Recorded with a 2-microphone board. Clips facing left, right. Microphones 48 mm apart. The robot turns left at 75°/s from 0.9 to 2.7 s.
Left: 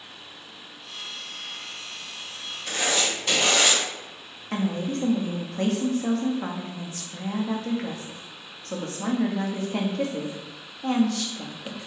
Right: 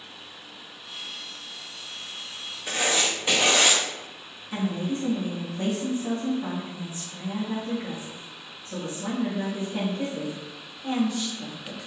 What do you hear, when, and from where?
2.7 s writing: 10° right (ahead or behind), 0.6 m; by 3.8 s 15° right (ahead or behind), 0.6 m
4.5 s a woman speaking: 75° left (ahead or behind), 0.6 m